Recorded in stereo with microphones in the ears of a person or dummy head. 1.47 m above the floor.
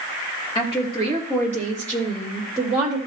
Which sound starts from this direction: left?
A woman speaking, at 0.6 s.